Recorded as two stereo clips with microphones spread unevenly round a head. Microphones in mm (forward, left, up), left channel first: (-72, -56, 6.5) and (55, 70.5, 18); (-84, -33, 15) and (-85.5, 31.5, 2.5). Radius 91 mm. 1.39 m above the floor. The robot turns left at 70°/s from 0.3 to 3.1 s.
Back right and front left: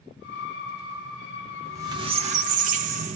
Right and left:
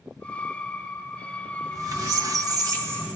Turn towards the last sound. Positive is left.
turn(degrees=15)